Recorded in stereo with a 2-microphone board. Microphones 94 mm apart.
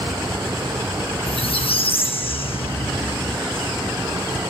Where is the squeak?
85° left, 1.0 m.